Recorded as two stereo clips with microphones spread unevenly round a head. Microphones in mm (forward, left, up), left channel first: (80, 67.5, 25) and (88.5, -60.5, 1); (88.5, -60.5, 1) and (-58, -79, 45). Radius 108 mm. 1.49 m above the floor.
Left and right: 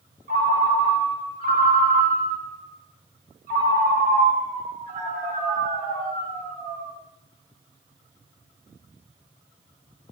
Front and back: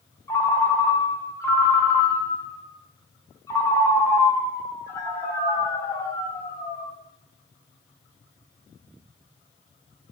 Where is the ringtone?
75° right, 0.7 m.